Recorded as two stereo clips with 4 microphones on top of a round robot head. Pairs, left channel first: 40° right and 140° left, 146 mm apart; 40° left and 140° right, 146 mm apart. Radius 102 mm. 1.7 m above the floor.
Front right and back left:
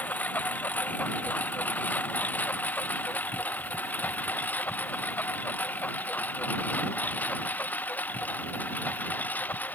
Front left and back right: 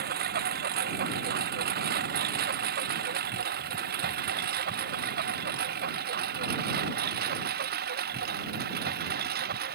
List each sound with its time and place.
0.0 s a lawn mower: 120° right